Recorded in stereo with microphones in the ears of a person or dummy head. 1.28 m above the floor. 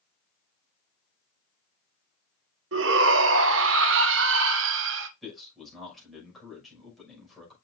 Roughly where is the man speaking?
Centre.